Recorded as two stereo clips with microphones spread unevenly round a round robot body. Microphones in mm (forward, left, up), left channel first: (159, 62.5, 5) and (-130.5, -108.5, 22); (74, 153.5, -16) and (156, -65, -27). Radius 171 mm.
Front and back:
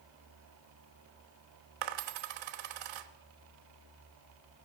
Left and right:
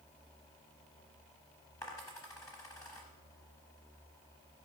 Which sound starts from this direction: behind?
A dropped coin, at 1.8 s.